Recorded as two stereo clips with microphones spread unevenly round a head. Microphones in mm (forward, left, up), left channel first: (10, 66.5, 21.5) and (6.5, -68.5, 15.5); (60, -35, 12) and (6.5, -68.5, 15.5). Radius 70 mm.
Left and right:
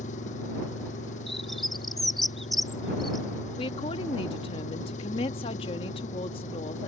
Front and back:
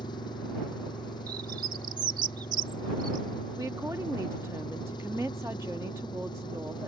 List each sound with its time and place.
0.0 s an engine running: 50° left
1.3 s a bird: straight behind
3.6 s a woman speaking: 145° left